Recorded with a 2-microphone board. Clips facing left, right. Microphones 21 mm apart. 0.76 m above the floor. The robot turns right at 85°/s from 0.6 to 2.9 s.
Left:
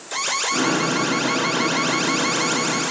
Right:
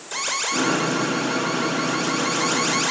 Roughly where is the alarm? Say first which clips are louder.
Left 2 dB; ahead.